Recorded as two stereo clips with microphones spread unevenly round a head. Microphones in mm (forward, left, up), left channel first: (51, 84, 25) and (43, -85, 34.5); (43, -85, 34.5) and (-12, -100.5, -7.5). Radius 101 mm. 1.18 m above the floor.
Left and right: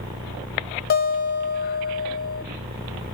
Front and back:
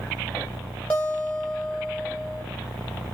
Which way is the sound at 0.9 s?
60° left.